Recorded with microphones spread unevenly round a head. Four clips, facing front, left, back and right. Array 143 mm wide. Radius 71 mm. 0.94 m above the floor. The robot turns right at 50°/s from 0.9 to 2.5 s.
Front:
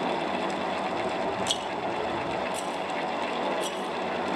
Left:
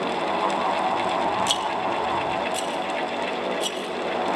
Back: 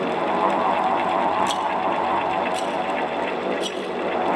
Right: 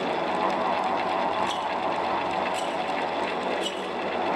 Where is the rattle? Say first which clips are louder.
Left 2 dB, back 8 dB; 95° left, 1.2 m; by 3.9 s 150° left, 1.2 m.